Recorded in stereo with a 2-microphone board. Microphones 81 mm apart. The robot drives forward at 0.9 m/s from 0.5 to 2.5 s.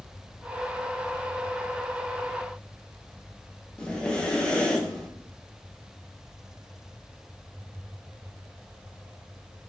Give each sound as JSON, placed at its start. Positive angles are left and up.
{"t": 3.8, "sound": "breathing", "side_deg": 10, "distance_m": 1.5}